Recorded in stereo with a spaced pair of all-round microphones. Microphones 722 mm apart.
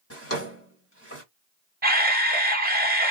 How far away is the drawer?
About 1.5 m.